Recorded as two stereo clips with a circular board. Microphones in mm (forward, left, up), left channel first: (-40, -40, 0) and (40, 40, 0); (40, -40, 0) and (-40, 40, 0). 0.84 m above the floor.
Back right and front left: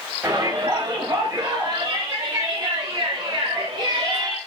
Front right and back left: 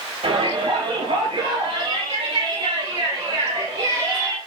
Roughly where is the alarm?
No alarm in this recording.